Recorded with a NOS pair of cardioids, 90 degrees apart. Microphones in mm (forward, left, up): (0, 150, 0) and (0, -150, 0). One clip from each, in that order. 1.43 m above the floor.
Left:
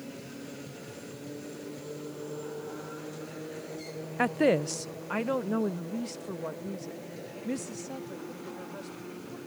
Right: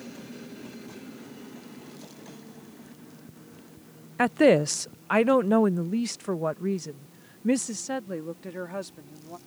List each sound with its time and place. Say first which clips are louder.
4.2 s a woman speaking: right 6 dB; 15° right; by 9.4 s 70° right